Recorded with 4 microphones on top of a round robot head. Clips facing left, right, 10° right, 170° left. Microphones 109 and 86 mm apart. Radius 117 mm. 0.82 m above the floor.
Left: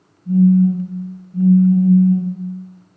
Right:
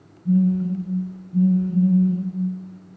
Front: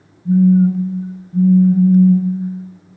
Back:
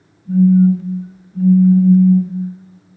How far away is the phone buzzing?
About 1.0 m.